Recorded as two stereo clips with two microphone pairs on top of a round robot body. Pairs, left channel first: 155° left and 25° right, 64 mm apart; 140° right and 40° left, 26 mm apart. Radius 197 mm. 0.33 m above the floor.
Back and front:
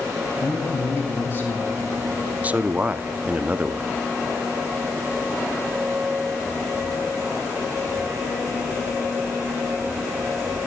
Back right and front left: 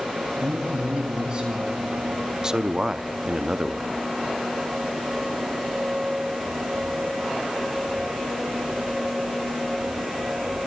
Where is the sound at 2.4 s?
15° right, 0.9 m.